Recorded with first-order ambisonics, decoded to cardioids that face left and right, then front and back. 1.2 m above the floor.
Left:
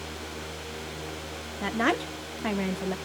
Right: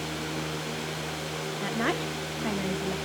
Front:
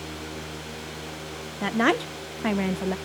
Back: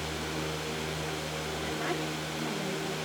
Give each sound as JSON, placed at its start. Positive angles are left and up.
{"t": 1.6, "sound": "a woman speaking", "azimuth_deg": 15, "distance_m": 1.0}